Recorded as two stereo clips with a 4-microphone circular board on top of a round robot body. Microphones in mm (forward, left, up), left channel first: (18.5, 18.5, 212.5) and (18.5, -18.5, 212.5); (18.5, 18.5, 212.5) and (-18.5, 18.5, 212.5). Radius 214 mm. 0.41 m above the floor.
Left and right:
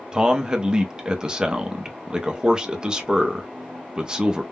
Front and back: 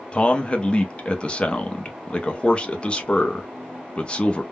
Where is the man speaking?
40° right, 0.8 m.